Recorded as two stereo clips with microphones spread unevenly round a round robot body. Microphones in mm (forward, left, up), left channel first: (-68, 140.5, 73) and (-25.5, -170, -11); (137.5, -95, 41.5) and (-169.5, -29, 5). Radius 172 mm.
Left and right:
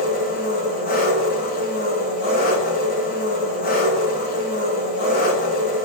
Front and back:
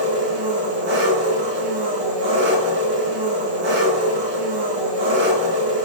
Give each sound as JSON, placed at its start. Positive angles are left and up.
{"t": 0.0, "sound": "an engine running", "azimuth_deg": 160, "distance_m": 4.5}